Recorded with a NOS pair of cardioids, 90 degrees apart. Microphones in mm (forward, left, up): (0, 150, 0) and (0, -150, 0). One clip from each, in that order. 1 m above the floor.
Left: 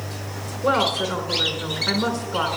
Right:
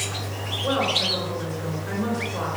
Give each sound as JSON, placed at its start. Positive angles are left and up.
{"t": 0.6, "sound": "a woman speaking", "azimuth_deg": 60, "distance_m": 4.0}